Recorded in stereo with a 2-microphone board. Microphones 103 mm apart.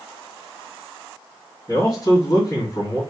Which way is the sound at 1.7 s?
40° left (ahead or behind).